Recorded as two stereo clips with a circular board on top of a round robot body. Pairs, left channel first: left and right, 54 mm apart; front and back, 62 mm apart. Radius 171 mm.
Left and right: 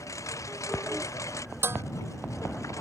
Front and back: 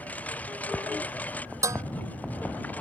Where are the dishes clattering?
140° right.